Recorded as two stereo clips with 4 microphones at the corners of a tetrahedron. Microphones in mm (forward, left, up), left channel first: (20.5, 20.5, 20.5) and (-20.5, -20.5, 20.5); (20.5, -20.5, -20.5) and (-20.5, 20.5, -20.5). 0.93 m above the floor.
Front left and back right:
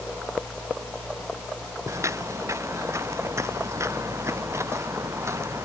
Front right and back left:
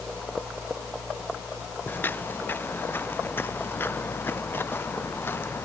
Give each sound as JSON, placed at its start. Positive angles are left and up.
{"t": 1.9, "sound": "footsteps", "azimuth_deg": -100}